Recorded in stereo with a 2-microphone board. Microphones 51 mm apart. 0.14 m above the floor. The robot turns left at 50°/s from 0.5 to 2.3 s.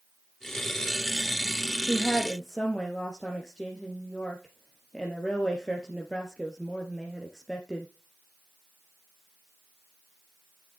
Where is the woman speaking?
15° right (ahead or behind), 2.5 m; by 7.9 s 5° left (ahead or behind), 2.5 m.